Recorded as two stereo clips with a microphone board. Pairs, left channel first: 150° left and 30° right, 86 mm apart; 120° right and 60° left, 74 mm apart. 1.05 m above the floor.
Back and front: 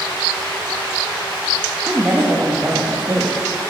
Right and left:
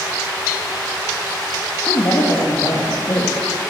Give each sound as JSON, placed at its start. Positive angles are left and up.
{"t": 1.9, "sound": "a woman speaking", "azimuth_deg": -95, "distance_m": 1.4}